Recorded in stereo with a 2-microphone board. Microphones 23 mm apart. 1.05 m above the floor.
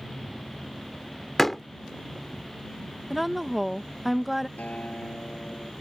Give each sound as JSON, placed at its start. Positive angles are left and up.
{"t": 1.4, "sound": "a door slam", "side_deg": 10}
{"t": 3.1, "sound": "a woman speaking", "side_deg": -5}
{"t": 4.6, "sound": "a guitar", "side_deg": 85}